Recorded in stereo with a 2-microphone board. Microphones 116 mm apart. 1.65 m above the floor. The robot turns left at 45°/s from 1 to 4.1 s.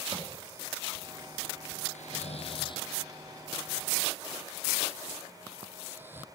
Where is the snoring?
80° left, 0.6 m; by 6.2 s 15° right (ahead or behind), 0.6 m.